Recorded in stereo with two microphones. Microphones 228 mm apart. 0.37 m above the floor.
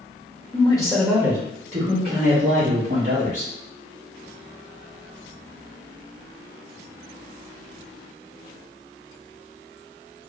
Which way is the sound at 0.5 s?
25° left (ahead or behind).